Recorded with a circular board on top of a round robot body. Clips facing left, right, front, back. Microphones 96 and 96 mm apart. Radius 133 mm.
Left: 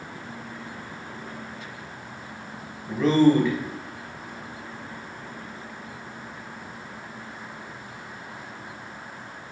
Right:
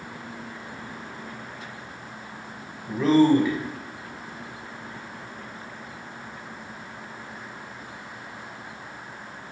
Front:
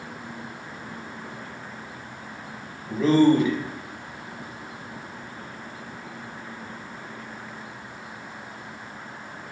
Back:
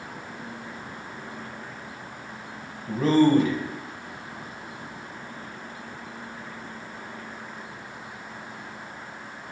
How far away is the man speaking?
About 1.1 m.